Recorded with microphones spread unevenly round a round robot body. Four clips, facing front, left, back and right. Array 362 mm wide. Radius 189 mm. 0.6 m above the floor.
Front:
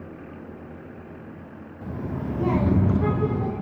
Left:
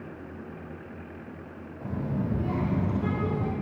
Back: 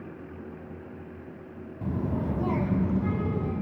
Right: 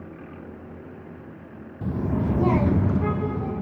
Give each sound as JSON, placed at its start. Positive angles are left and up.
{"t": 1.8, "sound": "a child speaking", "azimuth_deg": -115, "distance_m": 0.7}